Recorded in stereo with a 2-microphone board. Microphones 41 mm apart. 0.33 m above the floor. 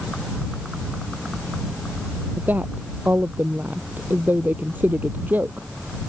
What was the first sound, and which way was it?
A woman speaking, 50° right (ahead or behind).